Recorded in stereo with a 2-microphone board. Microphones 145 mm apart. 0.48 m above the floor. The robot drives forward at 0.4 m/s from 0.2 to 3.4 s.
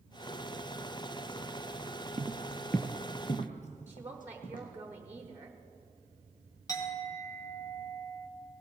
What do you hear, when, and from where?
2.2 s footsteps: 40° right (ahead or behind), 0.6 m; by 4.7 s 70° left (ahead or behind), 2 m
3.9 s a woman speaking: 15° right (ahead or behind), 1.0 m
6.7 s a clink: 25° left (ahead or behind), 1.8 m